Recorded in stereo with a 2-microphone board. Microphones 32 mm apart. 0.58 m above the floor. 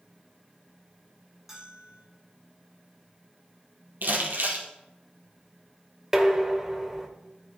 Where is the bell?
5° right (ahead or behind), 6.5 m.